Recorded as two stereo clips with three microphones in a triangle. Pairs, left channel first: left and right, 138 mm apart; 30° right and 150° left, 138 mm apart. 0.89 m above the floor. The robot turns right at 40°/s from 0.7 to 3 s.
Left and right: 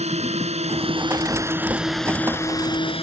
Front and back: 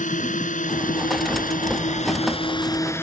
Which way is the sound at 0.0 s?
55° right.